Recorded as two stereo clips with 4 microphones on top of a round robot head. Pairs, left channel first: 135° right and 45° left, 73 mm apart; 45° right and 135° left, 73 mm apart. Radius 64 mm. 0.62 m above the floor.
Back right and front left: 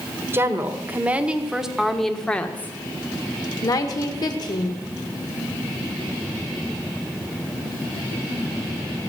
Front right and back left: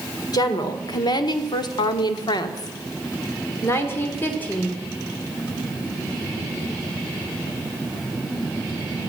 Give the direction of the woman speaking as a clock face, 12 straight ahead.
12 o'clock.